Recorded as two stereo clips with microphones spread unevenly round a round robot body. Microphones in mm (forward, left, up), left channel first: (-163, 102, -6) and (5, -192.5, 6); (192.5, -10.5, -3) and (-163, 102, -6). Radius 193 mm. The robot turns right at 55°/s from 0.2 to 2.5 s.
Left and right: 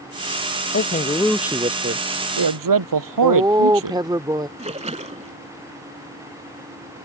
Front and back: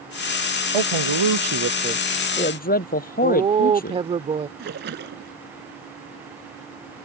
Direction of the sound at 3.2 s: 135° right.